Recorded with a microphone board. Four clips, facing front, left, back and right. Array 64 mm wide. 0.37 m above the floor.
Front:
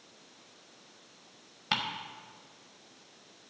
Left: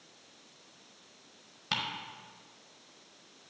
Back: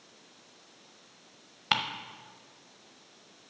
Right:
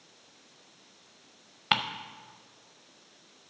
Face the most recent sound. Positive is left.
turn(degrees=-110)